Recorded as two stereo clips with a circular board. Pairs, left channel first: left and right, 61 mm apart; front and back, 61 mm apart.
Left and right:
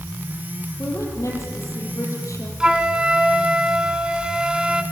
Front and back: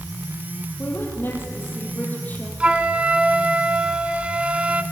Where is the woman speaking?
50° left, 6 m; by 2.5 s 60° left, 5.5 m.